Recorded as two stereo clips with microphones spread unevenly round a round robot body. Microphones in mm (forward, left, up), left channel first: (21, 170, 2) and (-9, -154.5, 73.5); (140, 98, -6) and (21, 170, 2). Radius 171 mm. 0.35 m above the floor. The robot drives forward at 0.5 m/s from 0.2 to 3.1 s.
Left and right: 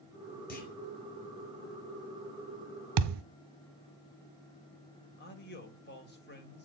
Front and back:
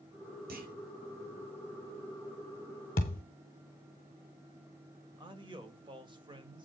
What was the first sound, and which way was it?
A clunk, 150° left.